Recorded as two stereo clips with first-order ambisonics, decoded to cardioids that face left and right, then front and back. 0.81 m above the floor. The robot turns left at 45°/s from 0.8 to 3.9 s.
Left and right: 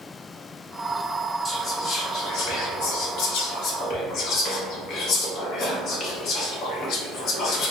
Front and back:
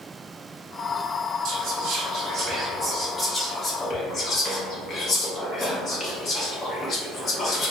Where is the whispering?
165° left, 0.7 m; by 7.7 s 55° left, 0.7 m.